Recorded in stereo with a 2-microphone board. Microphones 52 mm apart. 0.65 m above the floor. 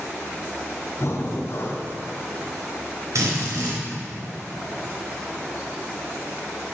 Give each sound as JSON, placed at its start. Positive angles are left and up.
{"t": 1.0, "sound": "breathing", "side_deg": 55, "distance_m": 1.1}
{"t": 3.1, "sound": "a drill", "side_deg": -70, "distance_m": 3.5}